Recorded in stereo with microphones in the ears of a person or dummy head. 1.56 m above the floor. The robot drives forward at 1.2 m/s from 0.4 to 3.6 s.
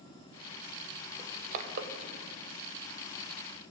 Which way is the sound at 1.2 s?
35° right (ahead or behind).